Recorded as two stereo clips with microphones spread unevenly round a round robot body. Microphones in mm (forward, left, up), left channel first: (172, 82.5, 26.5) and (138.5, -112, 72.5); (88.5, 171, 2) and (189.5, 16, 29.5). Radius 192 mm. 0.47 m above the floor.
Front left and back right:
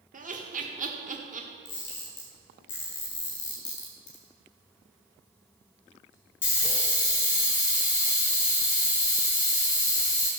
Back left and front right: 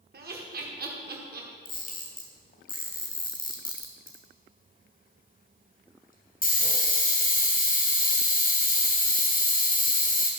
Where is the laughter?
50° right, 1.4 m.